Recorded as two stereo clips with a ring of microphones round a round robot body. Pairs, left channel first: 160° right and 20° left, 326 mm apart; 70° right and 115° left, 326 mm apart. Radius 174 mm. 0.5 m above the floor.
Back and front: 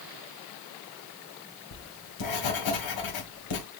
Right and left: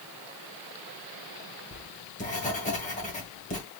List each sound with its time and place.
1.7 s writing: 135° right, 2 m